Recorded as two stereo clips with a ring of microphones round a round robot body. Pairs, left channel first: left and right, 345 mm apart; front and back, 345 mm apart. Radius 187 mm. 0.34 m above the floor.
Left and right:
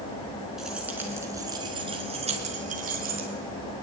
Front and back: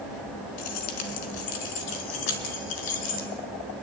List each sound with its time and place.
0.6 s keys jangling: straight ahead, 3.5 m; by 3.3 s 25° right, 4 m